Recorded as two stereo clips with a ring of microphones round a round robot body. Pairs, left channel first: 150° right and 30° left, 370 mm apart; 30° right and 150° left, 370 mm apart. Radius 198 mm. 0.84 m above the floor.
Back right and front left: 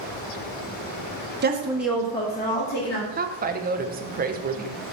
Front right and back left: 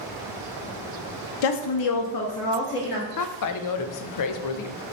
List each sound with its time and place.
1.4 s a woman speaking: 30° right, 0.7 m; by 3.1 s 90° right, 1.6 m
3.2 s a woman speaking: 30° right, 0.7 m